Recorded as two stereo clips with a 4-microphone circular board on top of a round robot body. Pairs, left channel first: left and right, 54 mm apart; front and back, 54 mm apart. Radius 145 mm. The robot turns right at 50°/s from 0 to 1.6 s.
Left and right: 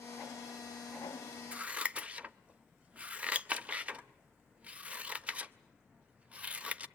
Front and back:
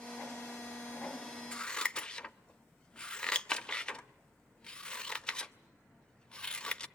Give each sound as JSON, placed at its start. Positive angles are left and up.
{"t": 1.5, "sound": "scissors", "azimuth_deg": -60, "distance_m": 1.4}